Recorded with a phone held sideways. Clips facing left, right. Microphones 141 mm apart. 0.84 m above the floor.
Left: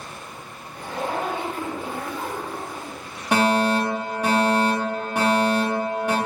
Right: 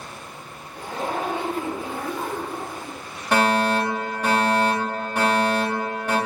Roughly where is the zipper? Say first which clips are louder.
Even; right.